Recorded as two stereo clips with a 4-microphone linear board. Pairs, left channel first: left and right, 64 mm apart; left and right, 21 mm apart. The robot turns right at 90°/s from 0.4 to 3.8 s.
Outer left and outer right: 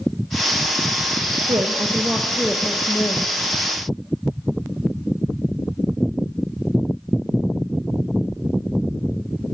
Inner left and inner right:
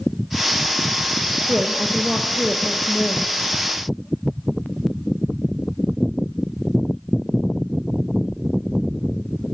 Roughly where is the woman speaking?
Right.